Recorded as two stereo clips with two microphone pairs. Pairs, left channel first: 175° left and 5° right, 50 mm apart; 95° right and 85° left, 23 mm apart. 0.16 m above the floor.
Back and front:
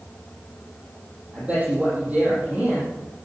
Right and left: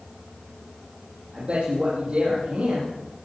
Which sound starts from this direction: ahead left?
A man speaking, at 1.3 s.